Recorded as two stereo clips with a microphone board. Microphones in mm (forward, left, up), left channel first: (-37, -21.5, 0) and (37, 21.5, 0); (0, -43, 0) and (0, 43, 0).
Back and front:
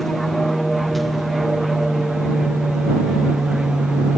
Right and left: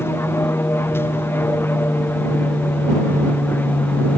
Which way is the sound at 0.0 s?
65° right.